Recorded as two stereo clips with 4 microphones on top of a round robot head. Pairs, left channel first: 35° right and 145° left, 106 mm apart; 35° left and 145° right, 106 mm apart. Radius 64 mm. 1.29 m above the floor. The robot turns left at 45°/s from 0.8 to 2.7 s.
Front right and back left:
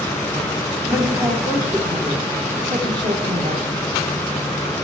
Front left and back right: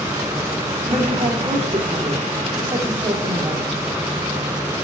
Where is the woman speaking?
125° right, 3 m; by 3.7 s 150° left, 3 m.